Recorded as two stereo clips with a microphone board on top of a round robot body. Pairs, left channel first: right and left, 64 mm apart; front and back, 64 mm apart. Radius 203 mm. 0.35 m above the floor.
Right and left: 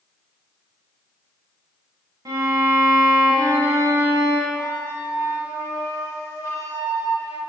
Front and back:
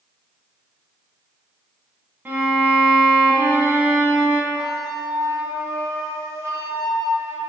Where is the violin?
115° left, 0.7 m.